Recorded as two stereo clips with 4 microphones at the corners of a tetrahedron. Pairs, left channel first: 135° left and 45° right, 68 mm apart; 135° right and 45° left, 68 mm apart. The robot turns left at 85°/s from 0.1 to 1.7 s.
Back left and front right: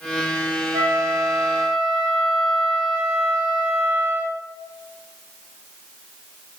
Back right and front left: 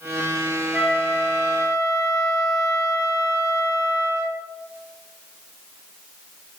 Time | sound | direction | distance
0.7 | a flute | 25° right | 0.9 m